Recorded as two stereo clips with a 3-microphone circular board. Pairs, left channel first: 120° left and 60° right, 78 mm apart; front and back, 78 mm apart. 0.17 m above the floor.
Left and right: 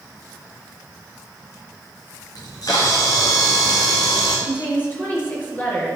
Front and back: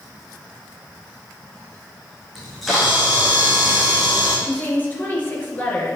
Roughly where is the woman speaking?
Ahead left.